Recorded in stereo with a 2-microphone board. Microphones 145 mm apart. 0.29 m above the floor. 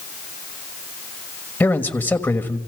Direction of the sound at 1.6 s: 15° left (ahead or behind).